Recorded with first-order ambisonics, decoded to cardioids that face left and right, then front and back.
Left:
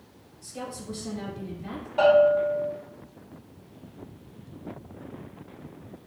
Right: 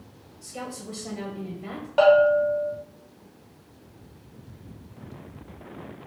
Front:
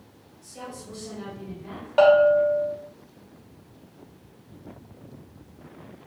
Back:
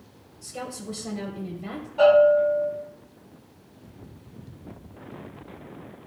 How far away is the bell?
About 1.9 m.